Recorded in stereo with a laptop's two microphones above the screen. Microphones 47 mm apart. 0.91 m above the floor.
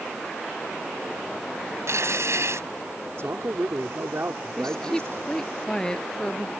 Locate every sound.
1.9 s tearing paper: 75° right (ahead or behind)
3.2 s a man speaking: 65° right (ahead or behind)
4.6 s a woman speaking: 15° left (ahead or behind)